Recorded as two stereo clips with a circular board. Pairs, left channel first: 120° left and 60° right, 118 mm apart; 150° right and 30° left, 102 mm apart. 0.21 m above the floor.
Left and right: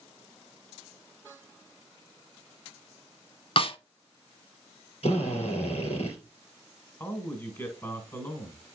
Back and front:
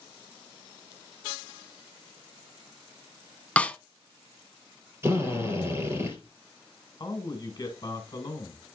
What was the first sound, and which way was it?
A snare drum, 140° left.